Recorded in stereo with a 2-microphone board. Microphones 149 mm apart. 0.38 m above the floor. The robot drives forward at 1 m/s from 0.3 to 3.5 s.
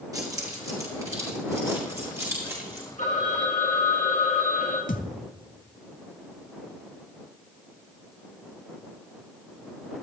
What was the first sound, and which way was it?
Keys jangling, 25° right (ahead or behind).